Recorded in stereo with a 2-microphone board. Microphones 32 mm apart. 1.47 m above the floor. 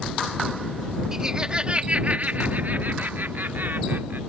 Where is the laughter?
20° right (ahead or behind); by 4.2 s 90° right.